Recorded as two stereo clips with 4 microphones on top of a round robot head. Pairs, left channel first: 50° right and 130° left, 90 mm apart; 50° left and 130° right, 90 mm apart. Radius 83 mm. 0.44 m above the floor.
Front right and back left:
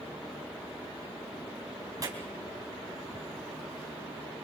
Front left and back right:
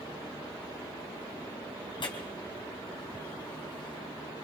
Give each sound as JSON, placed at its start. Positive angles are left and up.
{"t": 2.0, "sound": "tearing paper", "azimuth_deg": 80, "distance_m": 3.5}